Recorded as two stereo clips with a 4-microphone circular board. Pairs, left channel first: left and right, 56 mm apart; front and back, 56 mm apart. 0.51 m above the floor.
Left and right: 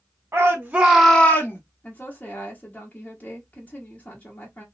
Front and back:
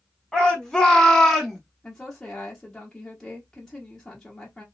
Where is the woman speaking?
70° left, 0.8 m.